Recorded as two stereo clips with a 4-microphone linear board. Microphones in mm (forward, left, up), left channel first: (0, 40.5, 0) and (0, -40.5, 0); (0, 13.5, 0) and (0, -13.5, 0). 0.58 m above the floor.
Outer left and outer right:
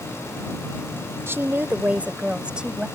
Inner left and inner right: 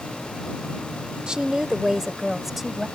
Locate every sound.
1.3 s a woman speaking: 30° right (ahead or behind); by 2.9 s 10° right (ahead or behind)